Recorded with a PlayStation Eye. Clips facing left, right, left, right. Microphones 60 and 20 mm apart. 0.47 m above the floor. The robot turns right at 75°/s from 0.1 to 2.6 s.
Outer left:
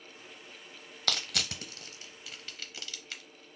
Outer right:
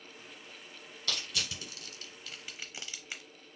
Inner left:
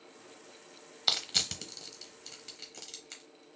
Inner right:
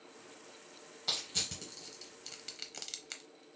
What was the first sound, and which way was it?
Crushing, 90° left.